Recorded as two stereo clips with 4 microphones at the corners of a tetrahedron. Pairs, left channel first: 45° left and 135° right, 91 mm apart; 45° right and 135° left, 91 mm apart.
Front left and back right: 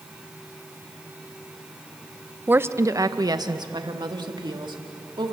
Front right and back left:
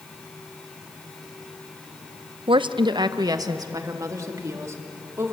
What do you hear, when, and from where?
2.5 s a woman speaking: 155° left, 0.6 m; by 5.3 s 165° right, 2.5 m